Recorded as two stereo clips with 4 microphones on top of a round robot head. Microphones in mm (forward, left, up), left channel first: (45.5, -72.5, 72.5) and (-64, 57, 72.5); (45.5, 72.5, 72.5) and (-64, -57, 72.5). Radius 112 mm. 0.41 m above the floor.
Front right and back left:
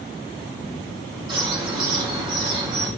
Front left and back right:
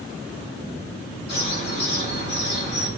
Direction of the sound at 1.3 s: 65° left.